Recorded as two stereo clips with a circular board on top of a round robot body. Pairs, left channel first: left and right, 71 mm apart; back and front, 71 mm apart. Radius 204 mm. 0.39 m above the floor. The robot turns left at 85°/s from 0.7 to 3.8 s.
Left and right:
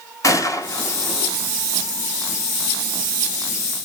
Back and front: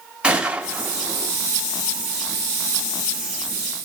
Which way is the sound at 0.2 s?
70° left.